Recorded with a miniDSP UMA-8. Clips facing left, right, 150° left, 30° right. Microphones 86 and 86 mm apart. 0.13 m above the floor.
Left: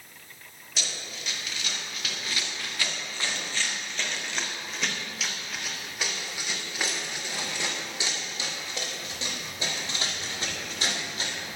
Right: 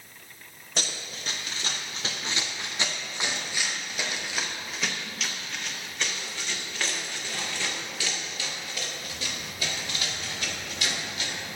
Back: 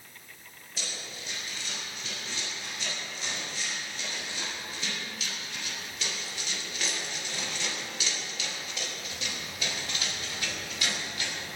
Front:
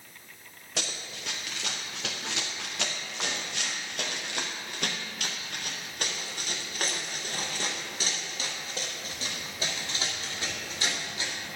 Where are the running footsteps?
45° right, 3.5 m; by 11.3 s 35° left, 6 m.